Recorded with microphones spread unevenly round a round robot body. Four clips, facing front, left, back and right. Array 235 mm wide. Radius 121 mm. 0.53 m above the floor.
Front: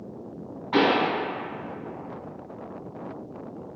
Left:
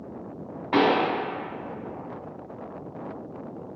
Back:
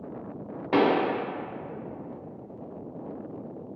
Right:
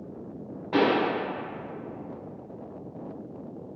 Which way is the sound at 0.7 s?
165° left.